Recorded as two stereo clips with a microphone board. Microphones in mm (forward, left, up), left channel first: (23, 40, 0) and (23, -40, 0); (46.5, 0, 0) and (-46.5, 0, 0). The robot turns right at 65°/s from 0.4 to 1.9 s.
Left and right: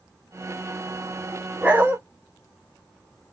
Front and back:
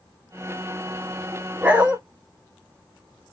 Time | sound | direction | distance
1.6 | a dog barking | 135° right | 0.6 m